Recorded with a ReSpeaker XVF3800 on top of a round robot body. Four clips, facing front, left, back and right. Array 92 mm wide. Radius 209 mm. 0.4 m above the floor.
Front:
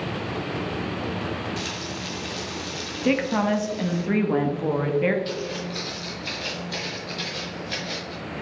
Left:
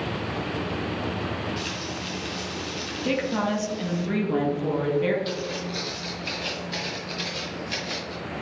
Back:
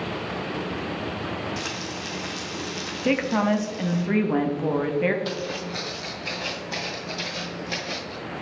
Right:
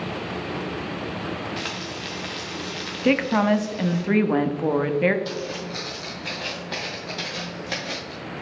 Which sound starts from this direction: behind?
Footsteps, at 5.2 s.